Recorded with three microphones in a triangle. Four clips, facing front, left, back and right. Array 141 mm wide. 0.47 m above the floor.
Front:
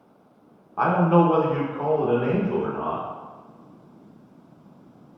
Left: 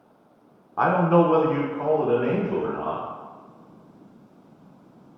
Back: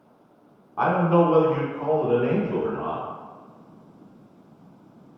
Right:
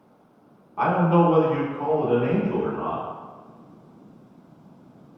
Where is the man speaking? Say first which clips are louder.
Left 1 dB, front 1 dB; 80° left, 0.7 m; by 3.0 s 30° left, 2.0 m.